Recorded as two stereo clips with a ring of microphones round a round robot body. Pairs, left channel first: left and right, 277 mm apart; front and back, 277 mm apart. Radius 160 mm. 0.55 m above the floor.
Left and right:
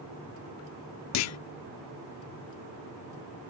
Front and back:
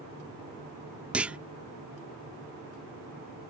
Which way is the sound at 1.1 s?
95° left.